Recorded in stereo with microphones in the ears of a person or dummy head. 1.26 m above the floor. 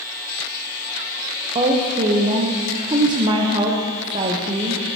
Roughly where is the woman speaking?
Right.